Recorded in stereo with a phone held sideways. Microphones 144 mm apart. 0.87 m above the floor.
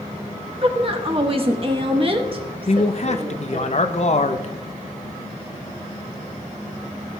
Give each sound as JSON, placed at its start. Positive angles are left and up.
{"t": 0.6, "sound": "a woman speaking", "side_deg": -40, "distance_m": 1.2}
{"t": 2.7, "sound": "a man speaking", "side_deg": 50, "distance_m": 0.7}